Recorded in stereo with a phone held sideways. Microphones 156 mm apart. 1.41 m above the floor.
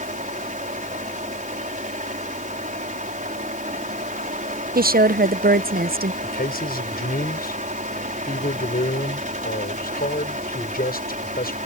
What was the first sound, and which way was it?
A fan, 55° right (ahead or behind).